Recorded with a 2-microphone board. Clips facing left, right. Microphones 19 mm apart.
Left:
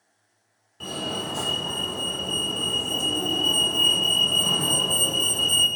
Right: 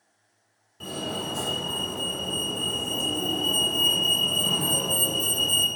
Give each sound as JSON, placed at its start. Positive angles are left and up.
{"t": 0.8, "sound": "a fire alarm", "side_deg": 20, "distance_m": 1.8}